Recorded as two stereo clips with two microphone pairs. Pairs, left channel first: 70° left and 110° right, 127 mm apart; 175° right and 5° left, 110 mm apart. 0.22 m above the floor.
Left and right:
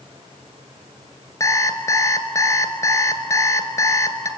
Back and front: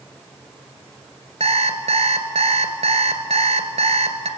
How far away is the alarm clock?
About 1.6 m.